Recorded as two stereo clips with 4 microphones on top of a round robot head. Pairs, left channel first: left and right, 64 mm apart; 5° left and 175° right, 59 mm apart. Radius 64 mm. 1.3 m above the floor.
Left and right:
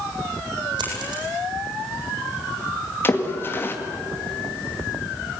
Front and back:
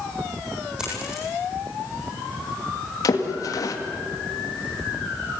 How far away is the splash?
About 2 m.